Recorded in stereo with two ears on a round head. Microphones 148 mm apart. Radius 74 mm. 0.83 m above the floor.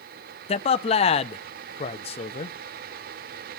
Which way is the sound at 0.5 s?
35° left (ahead or behind).